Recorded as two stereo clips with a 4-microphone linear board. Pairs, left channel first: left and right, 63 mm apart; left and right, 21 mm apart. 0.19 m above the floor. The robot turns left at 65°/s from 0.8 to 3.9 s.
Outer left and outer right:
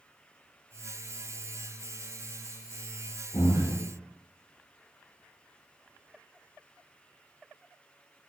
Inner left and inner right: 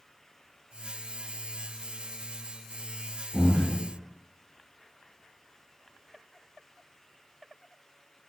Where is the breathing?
115° left, 1.2 m; by 3.8 s 85° left, 1.2 m.